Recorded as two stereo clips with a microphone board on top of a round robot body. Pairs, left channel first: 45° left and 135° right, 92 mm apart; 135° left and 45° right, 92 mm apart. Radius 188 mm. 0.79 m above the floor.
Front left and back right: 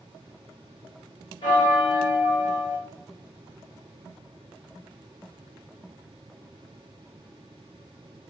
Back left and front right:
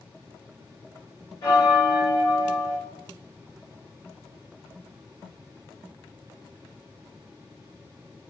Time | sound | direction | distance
1.4 | a bell | 80° left | 0.9 m